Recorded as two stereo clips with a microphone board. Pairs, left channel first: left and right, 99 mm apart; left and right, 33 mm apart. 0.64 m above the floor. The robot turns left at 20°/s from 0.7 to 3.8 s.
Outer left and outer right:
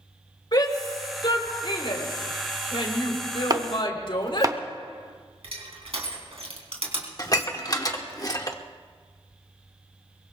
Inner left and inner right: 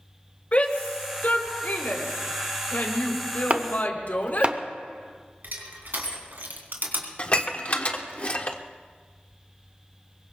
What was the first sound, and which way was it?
A shout, 50° left (ahead or behind).